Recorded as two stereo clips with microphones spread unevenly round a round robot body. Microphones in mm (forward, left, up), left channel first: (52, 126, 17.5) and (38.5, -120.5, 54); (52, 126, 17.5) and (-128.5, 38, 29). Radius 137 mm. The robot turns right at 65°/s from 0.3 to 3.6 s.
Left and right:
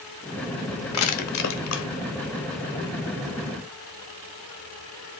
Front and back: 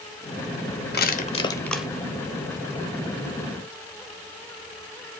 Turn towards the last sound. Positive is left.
turn(degrees=-125)